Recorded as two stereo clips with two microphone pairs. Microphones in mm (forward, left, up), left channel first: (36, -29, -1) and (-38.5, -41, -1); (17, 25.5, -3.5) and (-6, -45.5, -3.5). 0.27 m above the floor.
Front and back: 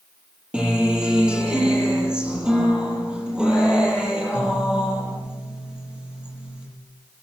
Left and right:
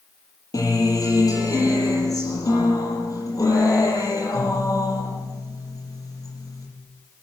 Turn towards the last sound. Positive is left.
turn(degrees=110)